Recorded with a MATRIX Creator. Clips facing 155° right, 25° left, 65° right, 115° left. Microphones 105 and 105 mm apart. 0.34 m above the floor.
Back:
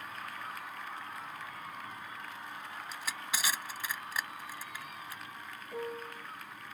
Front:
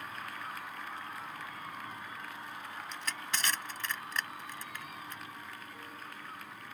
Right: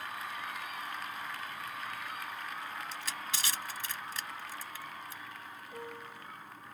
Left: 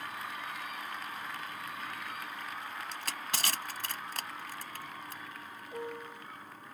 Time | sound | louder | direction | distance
2.9 | crushing | even, left 1 dB | 120° left | ?
5.7 | a piano | back 8 dB, left 5 dB | straight behind | ?